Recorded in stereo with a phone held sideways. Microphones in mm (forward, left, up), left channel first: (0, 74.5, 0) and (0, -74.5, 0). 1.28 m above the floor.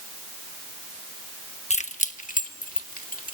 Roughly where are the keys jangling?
Left.